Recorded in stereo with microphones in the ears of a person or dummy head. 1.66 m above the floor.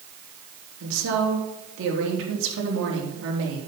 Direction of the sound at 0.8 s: 70° right (ahead or behind).